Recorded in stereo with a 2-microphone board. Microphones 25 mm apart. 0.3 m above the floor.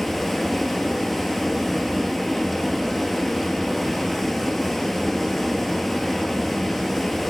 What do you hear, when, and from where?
0.0 s running water: 5° left (ahead or behind), 1.4 m